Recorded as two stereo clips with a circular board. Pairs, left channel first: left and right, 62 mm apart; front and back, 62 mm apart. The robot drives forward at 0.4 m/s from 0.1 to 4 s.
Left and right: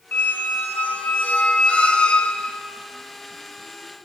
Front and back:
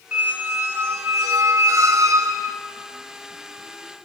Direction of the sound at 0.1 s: 130° left.